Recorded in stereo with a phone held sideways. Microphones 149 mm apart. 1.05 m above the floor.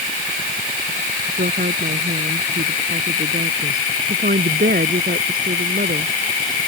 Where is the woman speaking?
80° right.